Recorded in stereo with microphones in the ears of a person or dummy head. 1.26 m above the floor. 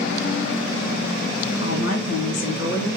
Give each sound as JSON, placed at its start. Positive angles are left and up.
{"t": 1.6, "sound": "a woman speaking", "side_deg": 75, "distance_m": 1.3}